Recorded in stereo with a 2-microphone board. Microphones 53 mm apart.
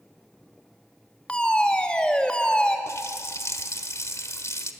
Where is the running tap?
65° left (ahead or behind), 1.4 m.